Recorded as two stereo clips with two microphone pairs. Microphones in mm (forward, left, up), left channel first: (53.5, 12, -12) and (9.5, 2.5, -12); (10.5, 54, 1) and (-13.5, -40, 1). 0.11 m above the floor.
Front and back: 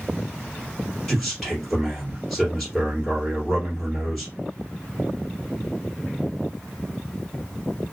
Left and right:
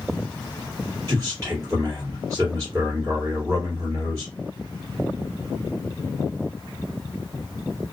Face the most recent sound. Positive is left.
turn(degrees=-70)